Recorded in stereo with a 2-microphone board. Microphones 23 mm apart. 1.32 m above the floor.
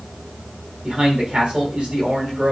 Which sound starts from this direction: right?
A man speaking, at 0.8 s.